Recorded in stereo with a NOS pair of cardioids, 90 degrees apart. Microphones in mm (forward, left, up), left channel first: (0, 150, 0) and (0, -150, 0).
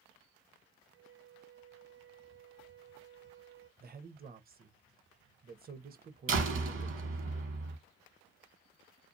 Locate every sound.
0.9 s a flute: 40° right, 0.8 m
3.8 s a man speaking: 30° right, 0.6 m
6.3 s a door slam: 45° right, 1.0 m